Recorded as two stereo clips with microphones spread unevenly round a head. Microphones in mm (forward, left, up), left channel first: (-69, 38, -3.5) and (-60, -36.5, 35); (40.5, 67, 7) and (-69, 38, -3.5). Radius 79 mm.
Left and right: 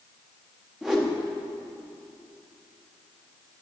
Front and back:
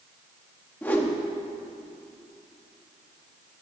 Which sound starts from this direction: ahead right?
A whoosh, at 0.8 s.